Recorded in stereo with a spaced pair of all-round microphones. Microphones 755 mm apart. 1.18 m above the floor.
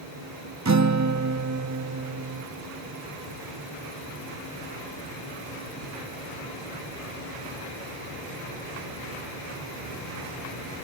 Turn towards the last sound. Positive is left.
turn(degrees=-25)  # may be behind; listen again after turning